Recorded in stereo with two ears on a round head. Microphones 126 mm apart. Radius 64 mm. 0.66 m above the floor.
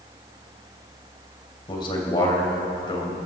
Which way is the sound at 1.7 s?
35° left (ahead or behind).